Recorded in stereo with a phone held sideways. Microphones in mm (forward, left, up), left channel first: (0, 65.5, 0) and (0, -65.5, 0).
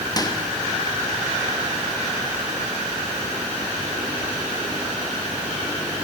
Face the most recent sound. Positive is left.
turn(degrees=30)  # may be behind; listen again after turning